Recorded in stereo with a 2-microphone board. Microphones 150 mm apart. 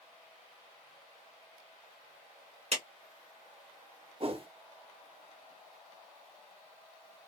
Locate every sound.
2.7 s a clap: 50° right (ahead or behind), 1.8 m
4.2 s a whoosh: 40° right (ahead or behind), 0.6 m